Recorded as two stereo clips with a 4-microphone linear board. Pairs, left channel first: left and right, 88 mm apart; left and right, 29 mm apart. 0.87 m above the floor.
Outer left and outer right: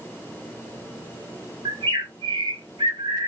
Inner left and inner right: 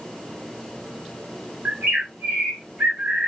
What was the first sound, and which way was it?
A bird, 70° right (ahead or behind).